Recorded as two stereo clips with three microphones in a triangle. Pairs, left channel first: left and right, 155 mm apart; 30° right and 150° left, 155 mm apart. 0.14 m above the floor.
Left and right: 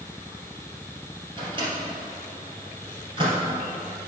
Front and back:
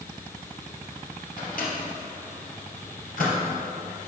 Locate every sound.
1.4 s a microwave: 35° right, 2.5 m